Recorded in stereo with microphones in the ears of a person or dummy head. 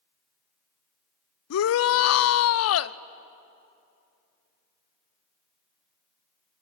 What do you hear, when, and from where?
1.5 s a shout: 70° left (ahead or behind), 0.6 m